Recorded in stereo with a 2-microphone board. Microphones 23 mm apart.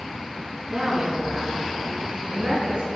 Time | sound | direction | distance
0.7 | a woman speaking | 35° right (ahead or behind) | 1.9 m